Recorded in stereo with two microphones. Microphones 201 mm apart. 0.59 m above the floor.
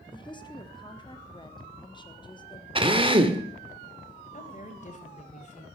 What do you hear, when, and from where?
0.1 s a woman speaking: 20° left (ahead or behind), 1.2 m
2.8 s a drill: 25° right (ahead or behind), 1.1 m
4.3 s a woman speaking: 35° left (ahead or behind), 2.5 m